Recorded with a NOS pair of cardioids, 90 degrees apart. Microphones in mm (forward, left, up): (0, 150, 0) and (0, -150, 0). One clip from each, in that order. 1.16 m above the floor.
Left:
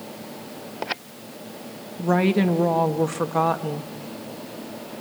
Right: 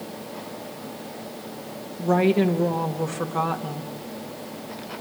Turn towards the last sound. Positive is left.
turn(degrees=20)